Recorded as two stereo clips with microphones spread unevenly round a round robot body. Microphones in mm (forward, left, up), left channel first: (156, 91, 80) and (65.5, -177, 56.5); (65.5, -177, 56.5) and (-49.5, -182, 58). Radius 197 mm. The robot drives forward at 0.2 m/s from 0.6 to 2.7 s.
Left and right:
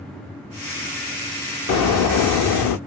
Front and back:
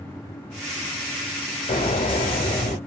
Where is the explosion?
40° left, 0.6 m; by 2.8 s 55° left, 0.5 m.